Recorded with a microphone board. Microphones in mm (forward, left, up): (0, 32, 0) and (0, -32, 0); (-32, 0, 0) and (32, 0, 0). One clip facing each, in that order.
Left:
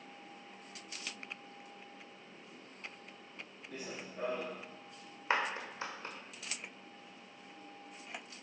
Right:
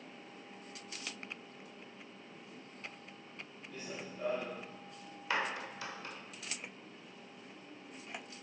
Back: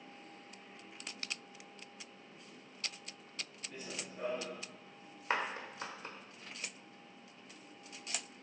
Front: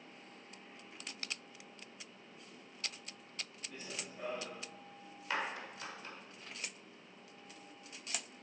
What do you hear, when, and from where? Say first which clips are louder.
3.7 s running footsteps: left 1 dB, back 2 dB; 100° left, 1.7 m
5.3 s a clap: left 2 dB, back 2 dB; 135° left, 0.9 m